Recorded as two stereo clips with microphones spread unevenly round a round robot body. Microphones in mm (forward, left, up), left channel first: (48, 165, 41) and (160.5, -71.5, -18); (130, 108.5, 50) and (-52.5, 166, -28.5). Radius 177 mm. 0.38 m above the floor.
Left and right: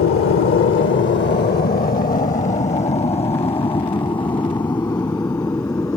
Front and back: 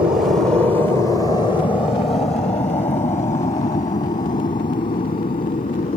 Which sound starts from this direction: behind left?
An aircraft, at 0.0 s.